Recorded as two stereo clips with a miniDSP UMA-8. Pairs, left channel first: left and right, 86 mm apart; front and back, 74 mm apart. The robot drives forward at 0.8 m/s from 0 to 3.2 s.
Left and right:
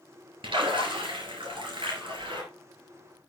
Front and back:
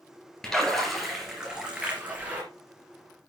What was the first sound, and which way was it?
A splash, 85° right.